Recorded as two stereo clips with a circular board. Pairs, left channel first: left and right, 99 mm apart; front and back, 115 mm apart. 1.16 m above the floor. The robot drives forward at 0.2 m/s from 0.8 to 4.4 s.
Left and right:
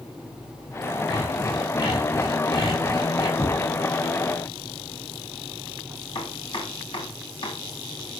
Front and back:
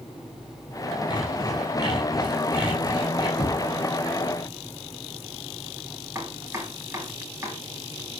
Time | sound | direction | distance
1.1 | sawing | 50° left | 8 m
3.4 | knocking | 45° left | 5.5 m
6.2 | chopping | 115° left | 4.5 m